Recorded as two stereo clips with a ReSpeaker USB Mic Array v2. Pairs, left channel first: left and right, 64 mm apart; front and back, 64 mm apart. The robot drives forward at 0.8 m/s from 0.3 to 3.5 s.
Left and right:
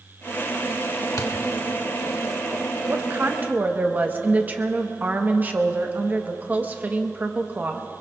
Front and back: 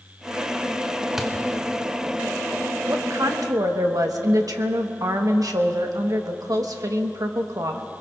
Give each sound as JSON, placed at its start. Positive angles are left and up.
{"t": 1.2, "sound": "a thud", "azimuth_deg": 100, "distance_m": 1.4}
{"t": 2.9, "sound": "a woman speaking", "azimuth_deg": -135, "distance_m": 0.8}